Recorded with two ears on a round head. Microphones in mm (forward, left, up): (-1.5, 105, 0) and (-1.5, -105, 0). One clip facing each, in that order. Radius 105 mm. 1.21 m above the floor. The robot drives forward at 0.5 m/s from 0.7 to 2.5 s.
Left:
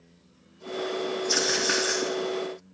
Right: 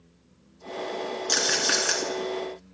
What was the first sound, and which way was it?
A rattle, 45° right (ahead or behind).